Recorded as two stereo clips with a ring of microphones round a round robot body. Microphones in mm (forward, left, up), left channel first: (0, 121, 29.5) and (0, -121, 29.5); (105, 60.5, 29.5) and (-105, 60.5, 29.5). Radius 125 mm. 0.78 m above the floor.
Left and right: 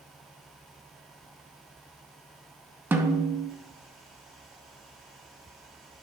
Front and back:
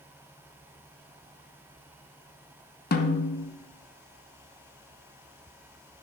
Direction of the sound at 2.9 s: 10° right.